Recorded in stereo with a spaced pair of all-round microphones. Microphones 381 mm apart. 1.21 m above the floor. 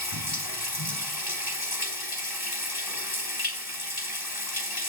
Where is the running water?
70° left (ahead or behind), 1.9 m.